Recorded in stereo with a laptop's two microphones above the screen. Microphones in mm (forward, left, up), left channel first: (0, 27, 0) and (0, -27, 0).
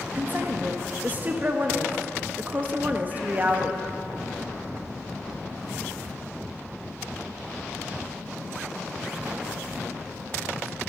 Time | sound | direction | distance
0.1 | a woman speaking | 30° right (ahead or behind) | 1.2 m